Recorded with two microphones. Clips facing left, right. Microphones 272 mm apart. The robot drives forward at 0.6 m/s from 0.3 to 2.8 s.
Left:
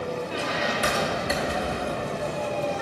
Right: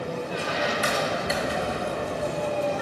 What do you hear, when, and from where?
0.3 s a squeak: 65° left (ahead or behind), 1.2 m; by 2.1 s 40° left (ahead or behind), 1.7 m